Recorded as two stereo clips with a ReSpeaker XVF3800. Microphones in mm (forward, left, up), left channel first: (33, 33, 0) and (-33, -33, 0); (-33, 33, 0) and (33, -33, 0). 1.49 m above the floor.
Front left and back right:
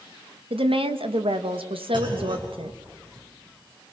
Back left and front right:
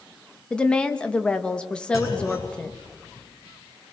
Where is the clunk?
170° right, 5.5 m.